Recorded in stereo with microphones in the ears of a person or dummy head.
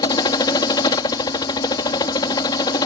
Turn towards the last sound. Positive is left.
turn(degrees=20)  # may be behind; listen again after turning